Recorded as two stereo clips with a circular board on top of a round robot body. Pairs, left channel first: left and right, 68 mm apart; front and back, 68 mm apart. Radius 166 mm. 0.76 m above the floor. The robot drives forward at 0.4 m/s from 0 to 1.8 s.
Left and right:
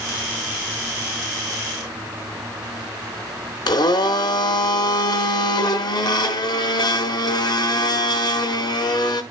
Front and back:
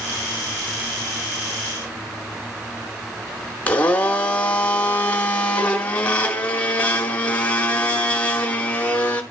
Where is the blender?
70° left, 0.6 m.